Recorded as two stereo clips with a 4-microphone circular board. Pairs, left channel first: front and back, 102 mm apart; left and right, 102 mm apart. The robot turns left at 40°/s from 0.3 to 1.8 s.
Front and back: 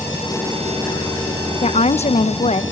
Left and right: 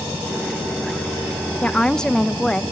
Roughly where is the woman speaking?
Ahead.